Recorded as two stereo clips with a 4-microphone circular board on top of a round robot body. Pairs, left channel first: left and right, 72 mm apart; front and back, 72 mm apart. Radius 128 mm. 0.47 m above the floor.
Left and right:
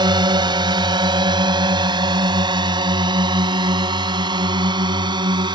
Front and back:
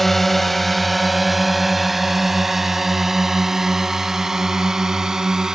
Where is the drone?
85° right; by 5.6 s 95° right.